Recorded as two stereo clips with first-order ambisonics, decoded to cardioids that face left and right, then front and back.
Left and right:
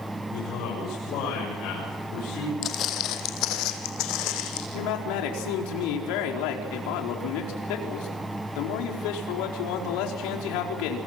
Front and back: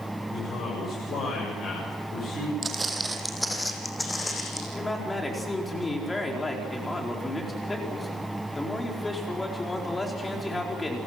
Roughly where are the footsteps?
Behind left.